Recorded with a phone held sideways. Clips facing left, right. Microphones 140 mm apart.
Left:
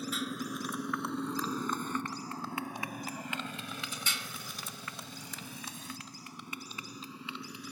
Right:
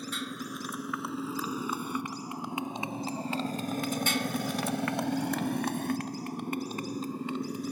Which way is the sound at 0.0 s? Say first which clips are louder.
Left 1 dB; centre (ahead or behind).